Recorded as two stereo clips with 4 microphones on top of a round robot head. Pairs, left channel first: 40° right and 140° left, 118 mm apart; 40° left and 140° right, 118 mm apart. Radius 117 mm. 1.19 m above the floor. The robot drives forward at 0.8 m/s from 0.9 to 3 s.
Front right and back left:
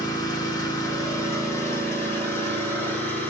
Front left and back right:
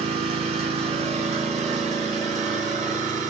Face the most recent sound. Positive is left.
turn(degrees=-115)